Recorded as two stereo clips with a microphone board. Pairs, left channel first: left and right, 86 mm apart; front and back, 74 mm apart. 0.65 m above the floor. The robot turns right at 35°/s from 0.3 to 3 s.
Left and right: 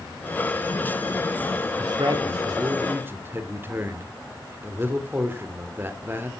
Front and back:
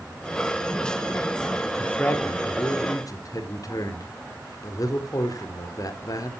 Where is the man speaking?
70° right, 2 m; by 6.3 s 30° right, 2 m.